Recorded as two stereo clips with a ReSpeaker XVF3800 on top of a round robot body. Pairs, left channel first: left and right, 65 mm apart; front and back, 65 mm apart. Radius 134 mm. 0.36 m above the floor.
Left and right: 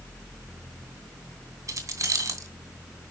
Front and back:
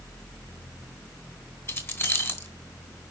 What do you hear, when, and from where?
1.7 s keys jangling: 55° right, 2.5 m